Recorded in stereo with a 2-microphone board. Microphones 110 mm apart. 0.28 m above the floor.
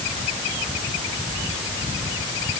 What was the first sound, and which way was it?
Only background noise.